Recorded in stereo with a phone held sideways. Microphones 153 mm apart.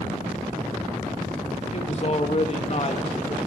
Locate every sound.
1.7 s a man speaking: 45° left (ahead or behind), 1.8 m